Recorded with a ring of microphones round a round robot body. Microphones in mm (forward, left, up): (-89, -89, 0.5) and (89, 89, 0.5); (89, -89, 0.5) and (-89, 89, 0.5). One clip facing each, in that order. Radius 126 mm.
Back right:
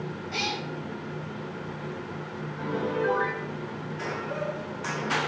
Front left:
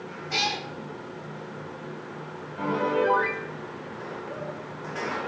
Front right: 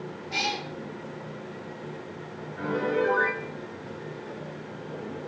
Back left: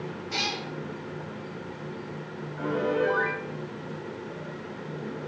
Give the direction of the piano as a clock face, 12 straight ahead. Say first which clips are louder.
Front left 3 dB, even; 10 o'clock.